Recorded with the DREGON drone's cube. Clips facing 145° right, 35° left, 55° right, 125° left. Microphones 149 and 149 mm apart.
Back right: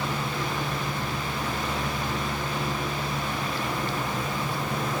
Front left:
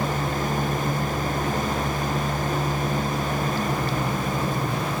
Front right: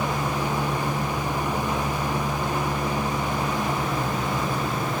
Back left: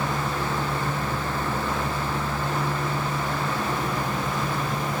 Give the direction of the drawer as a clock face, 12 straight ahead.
I don't hear a drawer.